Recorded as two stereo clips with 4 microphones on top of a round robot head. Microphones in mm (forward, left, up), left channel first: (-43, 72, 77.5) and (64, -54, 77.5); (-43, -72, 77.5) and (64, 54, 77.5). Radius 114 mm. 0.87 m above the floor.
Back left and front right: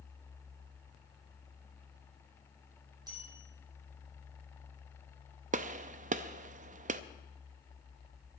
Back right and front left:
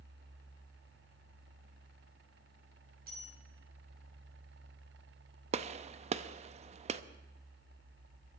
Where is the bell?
15° left, 5 m.